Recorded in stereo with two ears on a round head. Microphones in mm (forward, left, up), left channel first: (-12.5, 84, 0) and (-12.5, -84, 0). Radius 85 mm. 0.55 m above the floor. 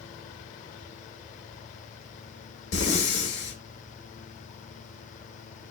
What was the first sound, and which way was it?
Breathing, 60° left (ahead or behind).